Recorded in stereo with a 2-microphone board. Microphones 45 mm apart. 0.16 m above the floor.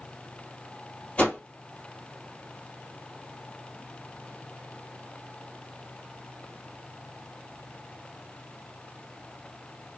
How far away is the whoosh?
About 1.6 m.